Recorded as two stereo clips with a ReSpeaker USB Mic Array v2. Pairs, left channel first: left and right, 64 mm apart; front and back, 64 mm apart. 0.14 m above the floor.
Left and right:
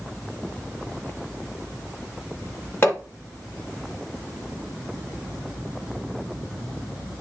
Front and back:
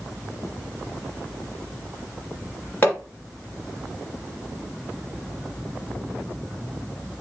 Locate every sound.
2.8 s hammering: 50° left, 2 m